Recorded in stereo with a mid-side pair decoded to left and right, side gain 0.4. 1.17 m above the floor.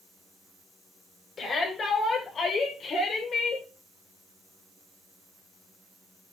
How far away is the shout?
About 7 m.